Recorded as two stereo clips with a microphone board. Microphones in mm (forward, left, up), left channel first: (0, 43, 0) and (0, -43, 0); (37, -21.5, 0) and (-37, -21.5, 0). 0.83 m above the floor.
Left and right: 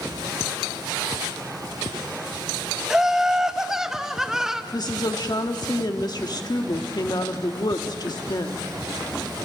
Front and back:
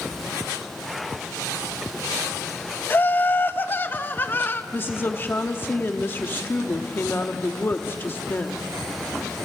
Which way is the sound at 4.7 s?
60° left.